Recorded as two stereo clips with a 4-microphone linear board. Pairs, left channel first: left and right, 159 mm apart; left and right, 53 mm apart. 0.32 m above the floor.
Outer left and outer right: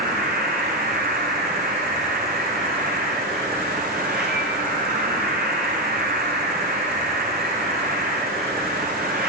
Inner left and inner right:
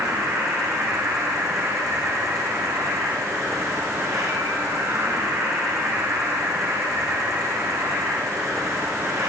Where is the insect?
90° right, 8.5 m.